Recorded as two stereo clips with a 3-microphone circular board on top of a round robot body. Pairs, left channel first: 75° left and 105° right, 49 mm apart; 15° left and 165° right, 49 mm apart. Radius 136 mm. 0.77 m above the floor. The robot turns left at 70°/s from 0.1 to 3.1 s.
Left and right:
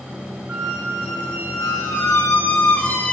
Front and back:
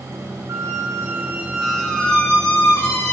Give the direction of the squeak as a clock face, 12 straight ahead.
6 o'clock.